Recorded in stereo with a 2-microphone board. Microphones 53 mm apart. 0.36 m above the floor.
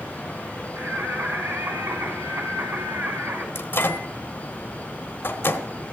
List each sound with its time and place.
0.8 s singing: 70° right (ahead or behind), 2.5 m
3.5 s a microwave: 50° left (ahead or behind), 1.1 m